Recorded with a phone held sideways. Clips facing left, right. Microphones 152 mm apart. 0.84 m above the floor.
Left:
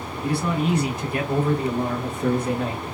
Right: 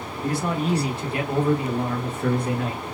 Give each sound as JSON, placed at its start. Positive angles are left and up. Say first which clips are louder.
{"t": 0.2, "sound": "a man speaking", "louder": "left 1 dB", "side_deg": -45, "distance_m": 1.2}